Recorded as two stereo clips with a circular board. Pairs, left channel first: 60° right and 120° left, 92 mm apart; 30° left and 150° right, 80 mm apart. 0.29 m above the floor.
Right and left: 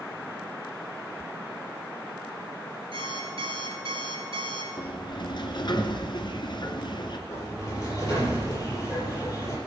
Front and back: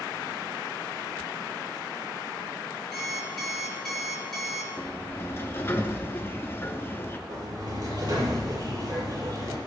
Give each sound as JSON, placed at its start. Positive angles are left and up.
{"t": 2.9, "sound": "an alarm clock", "azimuth_deg": 115, "distance_m": 3.0}
{"t": 4.8, "sound": "a sliding door", "azimuth_deg": -30, "distance_m": 1.8}
{"t": 7.3, "sound": "a sliding door", "azimuth_deg": -120, "distance_m": 7.5}